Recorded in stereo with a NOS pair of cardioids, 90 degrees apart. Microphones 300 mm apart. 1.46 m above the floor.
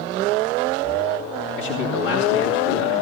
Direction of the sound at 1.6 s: 70° left.